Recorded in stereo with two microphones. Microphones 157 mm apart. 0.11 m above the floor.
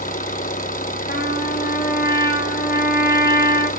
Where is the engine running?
60° left (ahead or behind), 1.2 m.